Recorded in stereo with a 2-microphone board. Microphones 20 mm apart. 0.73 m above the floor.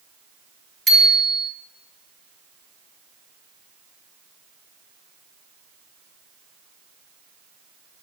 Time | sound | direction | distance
0.9 | a bicycle bell | 20° left (ahead or behind) | 3 m